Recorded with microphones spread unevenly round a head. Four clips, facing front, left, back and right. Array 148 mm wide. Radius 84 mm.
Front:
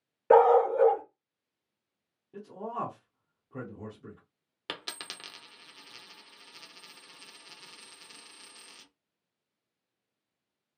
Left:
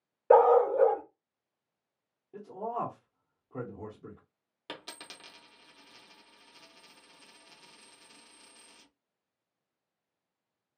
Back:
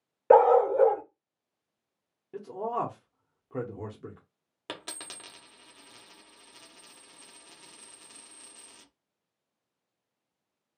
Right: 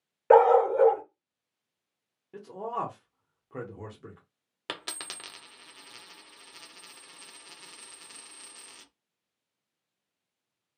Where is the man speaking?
115° right, 1.1 m.